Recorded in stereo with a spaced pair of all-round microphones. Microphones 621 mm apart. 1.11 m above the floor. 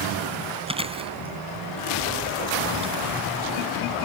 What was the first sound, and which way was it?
Chewing, 10° right (ahead or behind).